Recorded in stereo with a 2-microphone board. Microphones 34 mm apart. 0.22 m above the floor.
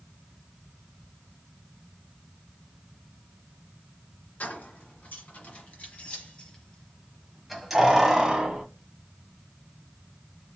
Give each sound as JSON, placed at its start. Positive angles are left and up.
{"t": 4.4, "sound": "keys jangling", "side_deg": 60, "distance_m": 1.9}